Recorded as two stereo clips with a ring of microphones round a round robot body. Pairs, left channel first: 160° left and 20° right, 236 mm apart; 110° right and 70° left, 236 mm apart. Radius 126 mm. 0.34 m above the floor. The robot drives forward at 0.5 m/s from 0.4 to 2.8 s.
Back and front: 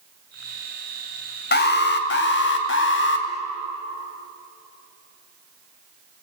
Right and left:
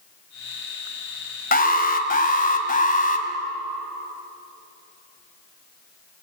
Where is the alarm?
160° right, 1.6 m; by 3.3 s 170° right, 2 m.